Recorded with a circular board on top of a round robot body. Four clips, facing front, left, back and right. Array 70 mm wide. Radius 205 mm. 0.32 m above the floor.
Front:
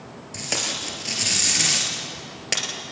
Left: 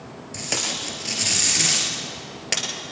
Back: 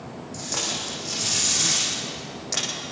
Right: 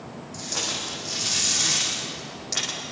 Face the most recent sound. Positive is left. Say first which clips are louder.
# left 3 dB, front 2 dB
turn(degrees=45)